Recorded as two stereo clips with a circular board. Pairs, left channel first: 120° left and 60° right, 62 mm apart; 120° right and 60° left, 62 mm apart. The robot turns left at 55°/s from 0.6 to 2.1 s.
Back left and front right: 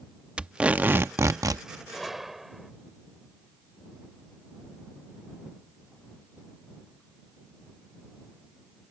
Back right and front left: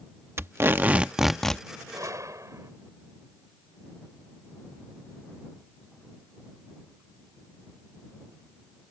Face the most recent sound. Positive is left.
turn(degrees=25)